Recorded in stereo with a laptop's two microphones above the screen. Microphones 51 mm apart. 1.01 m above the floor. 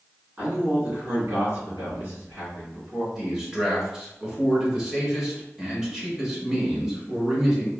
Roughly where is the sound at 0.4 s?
Right.